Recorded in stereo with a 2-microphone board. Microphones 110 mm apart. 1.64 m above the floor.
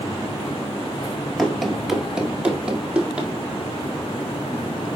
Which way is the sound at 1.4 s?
Centre (ahead or behind).